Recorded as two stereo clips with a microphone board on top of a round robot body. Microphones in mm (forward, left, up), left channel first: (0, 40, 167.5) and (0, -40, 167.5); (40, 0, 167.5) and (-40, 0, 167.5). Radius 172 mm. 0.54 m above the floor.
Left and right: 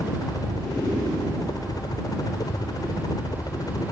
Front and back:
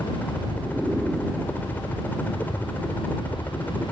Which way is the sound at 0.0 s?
65° left.